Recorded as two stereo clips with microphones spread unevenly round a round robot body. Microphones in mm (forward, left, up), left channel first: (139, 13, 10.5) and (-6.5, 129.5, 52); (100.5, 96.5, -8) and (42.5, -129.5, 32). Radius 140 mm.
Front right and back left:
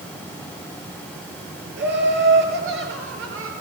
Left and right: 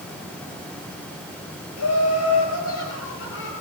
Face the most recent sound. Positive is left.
turn(degrees=130)